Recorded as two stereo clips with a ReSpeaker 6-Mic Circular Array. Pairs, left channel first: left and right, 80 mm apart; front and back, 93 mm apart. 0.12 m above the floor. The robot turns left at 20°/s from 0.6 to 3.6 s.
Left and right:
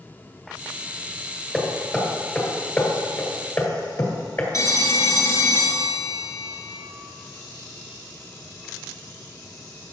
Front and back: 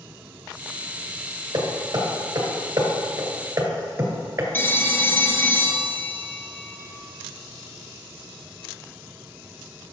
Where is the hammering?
175° left, 1.6 m; by 4.4 s 130° left, 1.6 m.